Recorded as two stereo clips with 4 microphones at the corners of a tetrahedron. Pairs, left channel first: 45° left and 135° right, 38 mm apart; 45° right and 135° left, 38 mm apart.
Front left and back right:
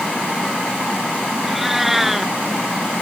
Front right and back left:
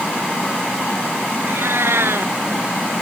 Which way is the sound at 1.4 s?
140° left.